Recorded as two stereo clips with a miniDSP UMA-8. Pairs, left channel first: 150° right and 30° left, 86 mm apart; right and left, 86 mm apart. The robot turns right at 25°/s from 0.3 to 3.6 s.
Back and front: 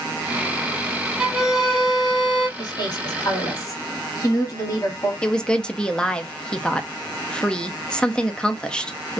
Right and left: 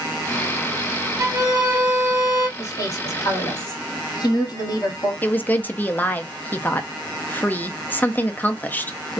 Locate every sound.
1.2 s a violin: 110° left, 1.6 m; by 2.5 s 140° left, 1.6 m
2.6 s a woman speaking: 140° right, 1.6 m; by 5.1 s 115° right, 1.6 m
5.2 s a woman speaking: 85° right, 0.5 m